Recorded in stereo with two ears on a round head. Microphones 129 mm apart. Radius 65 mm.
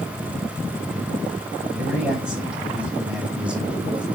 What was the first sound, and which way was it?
A man speaking, 5° right (ahead or behind).